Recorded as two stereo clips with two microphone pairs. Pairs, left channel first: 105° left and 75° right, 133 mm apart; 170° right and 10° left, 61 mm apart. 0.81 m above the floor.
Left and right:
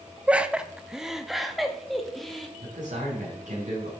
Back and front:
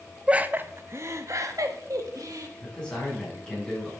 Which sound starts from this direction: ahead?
Laughter, at 0.3 s.